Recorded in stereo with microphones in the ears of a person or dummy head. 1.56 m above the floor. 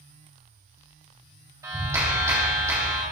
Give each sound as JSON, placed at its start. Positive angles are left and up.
{"t": 1.6, "sound": "a clap", "side_deg": -15, "distance_m": 1.7}